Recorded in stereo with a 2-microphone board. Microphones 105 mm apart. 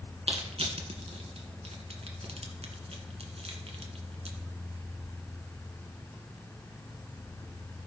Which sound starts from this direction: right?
Crushing, at 0.3 s.